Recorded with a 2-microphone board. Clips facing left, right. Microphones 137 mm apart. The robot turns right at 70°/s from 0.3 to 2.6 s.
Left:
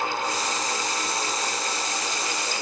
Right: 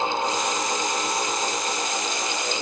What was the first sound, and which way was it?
Only background noise.